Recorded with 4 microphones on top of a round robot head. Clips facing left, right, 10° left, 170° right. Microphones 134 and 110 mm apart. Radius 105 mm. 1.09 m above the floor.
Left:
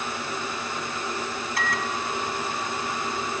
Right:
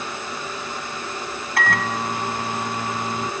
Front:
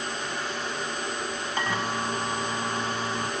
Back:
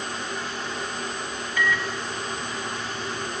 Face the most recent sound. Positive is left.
turn(degrees=-60)